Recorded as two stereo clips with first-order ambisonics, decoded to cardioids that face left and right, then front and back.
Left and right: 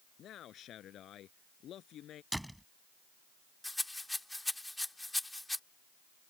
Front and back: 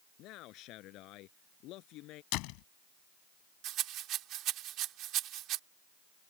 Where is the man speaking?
35° left.